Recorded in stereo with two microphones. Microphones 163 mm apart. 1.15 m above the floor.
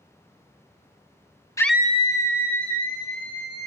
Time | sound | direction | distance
1.6 | a scream | 20° left (ahead or behind) | 0.5 m